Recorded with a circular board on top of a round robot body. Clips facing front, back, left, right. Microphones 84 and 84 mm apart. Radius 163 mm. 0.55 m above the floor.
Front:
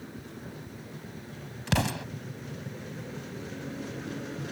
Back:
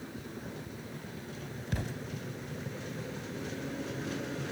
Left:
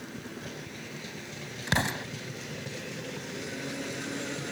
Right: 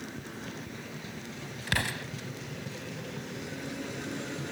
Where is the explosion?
20° left.